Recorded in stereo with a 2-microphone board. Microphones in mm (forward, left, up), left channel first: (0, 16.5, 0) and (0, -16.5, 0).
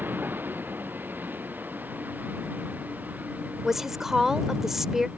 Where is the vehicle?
85° right; by 5.2 s 55° right (ahead or behind).